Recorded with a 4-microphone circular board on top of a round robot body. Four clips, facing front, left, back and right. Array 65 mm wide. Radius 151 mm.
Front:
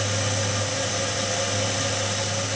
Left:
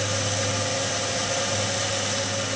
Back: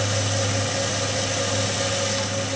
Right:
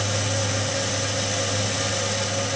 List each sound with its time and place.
Only background noise.